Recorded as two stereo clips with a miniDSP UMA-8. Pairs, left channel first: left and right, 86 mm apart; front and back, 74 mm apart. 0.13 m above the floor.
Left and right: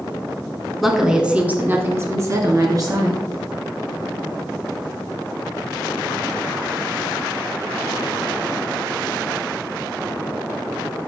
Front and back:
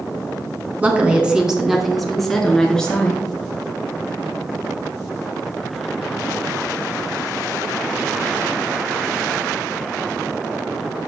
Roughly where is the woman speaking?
Behind.